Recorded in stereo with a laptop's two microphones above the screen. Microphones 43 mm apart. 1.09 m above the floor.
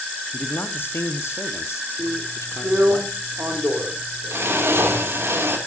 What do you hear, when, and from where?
0.3 s a man speaking: 40° left (ahead or behind), 1.7 m; by 3.0 s 70° left (ahead or behind), 3 m
2.0 s a drill: 65° right (ahead or behind), 3 m